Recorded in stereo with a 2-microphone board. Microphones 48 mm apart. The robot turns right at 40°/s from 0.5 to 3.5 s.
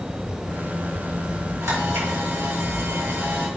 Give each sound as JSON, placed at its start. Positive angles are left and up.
{"t": 1.6, "sound": "a camera shutter", "azimuth_deg": -105, "distance_m": 3.0}